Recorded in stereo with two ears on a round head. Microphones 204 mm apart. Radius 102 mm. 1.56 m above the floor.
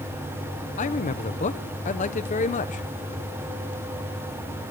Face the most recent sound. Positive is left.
turn(degrees=30)  # may be behind; listen again after turning